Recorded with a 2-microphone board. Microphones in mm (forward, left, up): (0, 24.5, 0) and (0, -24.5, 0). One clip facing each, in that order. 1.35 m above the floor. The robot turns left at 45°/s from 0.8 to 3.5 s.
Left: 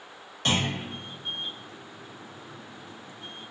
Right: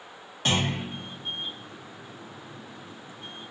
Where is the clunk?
10° right (ahead or behind), 1.6 m; by 0.9 s 5° right (ahead or behind), 1.6 m.